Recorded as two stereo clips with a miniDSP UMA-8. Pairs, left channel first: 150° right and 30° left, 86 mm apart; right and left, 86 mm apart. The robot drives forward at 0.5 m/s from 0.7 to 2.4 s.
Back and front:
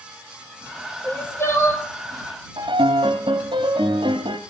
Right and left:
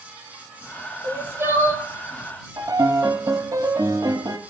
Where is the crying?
150° left, 4 m.